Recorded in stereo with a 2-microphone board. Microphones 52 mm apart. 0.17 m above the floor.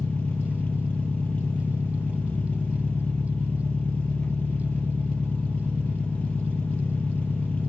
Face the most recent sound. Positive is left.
turn(degrees=25)  # may be behind; listen again after turning